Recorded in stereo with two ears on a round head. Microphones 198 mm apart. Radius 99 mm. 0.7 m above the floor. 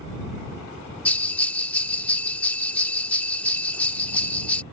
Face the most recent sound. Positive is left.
turn(degrees=5)  # may be behind; listen again after turning